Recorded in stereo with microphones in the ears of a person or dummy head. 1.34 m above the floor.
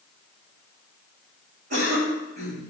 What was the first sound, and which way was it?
A cough, 55° right (ahead or behind).